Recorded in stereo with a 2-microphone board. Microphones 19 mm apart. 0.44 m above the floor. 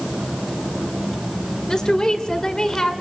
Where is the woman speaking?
40° left (ahead or behind), 1.9 m; by 2.9 s 45° left (ahead or behind), 1.8 m.